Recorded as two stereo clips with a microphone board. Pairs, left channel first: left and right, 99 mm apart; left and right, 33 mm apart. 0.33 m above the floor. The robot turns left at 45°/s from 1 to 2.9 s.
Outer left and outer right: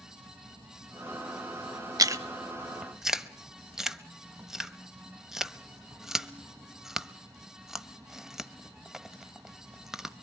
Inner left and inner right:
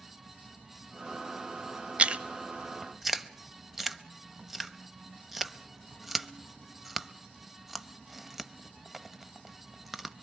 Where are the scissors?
I don't hear scissors.